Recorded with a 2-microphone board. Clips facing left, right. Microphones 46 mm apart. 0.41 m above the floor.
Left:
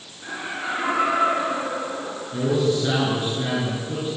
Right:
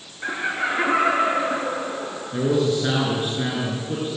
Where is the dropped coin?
I don't hear a dropped coin.